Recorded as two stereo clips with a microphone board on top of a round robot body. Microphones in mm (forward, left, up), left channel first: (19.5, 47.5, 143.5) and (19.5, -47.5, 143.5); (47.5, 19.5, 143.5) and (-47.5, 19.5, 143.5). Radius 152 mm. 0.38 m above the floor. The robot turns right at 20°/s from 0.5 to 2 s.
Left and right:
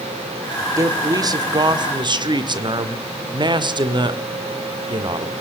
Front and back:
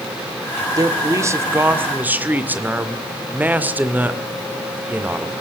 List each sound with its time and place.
0.8 s a man speaking: 135° right, 2 m; by 5.3 s 110° right, 2 m